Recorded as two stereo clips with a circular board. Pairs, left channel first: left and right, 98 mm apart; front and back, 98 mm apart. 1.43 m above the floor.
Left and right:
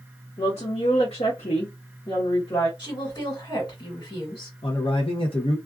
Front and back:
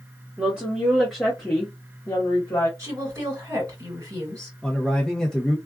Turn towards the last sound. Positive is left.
turn(degrees=85)